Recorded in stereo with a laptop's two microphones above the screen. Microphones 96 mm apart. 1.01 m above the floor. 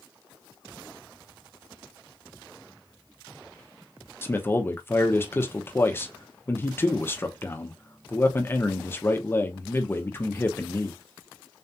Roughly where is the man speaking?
Left.